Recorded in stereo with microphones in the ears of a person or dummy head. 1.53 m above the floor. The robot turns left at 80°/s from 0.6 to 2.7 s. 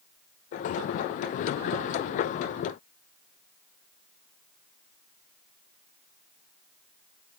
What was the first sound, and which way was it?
Only background noise.